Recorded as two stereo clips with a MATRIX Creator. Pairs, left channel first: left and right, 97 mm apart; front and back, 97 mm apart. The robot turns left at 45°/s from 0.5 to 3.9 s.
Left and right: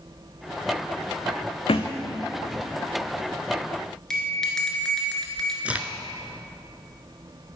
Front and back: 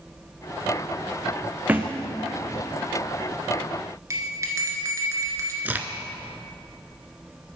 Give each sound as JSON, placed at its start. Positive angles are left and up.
{"t": 1.7, "sound": "a thud", "azimuth_deg": 110, "distance_m": 0.9}
{"t": 4.1, "sound": "a bell", "azimuth_deg": 170, "distance_m": 1.8}
{"t": 5.7, "sound": "a crack", "azimuth_deg": -145, "distance_m": 0.6}